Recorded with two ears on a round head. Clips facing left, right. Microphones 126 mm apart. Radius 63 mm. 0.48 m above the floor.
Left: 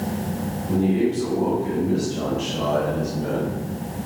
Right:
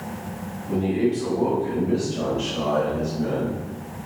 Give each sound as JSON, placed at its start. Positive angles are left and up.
{"t": 0.7, "sound": "a man speaking", "side_deg": 10, "distance_m": 1.7}